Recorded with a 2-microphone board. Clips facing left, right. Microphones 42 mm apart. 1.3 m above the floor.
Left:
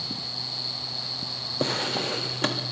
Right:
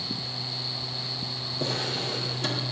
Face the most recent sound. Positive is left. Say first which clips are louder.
# left 3 dB
turn(degrees=55)  # may be behind; listen again after turning